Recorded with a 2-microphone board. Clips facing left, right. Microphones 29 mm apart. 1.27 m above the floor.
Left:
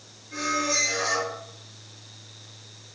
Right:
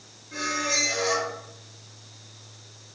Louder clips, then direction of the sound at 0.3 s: Left 1 dB; centre (ahead or behind).